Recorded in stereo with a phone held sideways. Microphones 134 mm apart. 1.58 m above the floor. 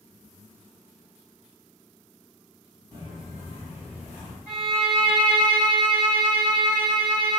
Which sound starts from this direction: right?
Footsteps, at 2.9 s.